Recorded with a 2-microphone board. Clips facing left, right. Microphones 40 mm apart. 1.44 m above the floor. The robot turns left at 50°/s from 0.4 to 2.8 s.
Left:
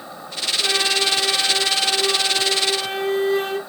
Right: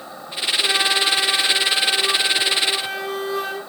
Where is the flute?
170° left, 1.4 m; by 3.6 s 60° left, 1.4 m.